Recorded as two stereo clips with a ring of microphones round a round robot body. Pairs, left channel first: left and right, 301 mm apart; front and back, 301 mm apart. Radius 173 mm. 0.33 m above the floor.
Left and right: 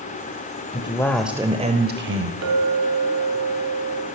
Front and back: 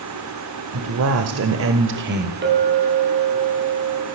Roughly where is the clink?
Behind right.